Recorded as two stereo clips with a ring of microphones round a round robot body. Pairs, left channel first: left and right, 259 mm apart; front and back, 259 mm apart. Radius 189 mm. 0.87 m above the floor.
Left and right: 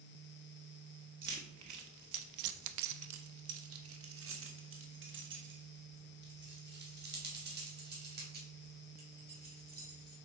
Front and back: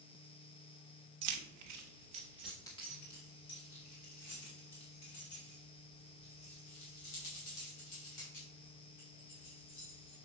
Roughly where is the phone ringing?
No phone ringing in this recording.